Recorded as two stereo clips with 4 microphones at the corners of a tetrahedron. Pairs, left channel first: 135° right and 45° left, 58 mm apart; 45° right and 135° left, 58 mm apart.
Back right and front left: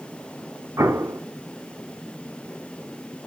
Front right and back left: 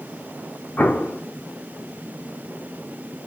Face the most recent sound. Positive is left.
turn(degrees=10)